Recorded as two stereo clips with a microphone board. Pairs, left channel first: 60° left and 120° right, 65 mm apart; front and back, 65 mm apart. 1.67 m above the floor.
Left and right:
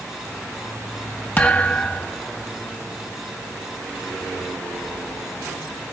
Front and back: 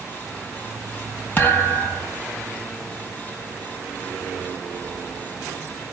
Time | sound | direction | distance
1.4 | a thud | 25° left | 1.1 m